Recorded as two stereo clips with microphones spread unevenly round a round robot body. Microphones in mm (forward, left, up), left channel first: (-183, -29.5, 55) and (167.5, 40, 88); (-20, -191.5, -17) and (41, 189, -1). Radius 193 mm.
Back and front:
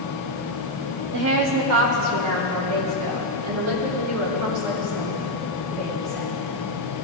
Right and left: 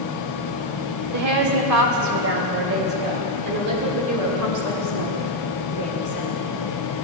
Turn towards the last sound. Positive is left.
turn(degrees=30)